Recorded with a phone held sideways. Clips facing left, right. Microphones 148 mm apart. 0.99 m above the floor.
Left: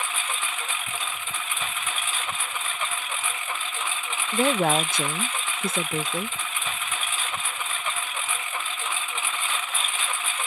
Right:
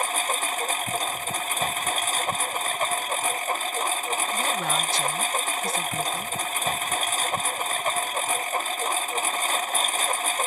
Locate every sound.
0.0 s a lawn mower: 40° right (ahead or behind)
4.3 s a woman speaking: 50° left (ahead or behind)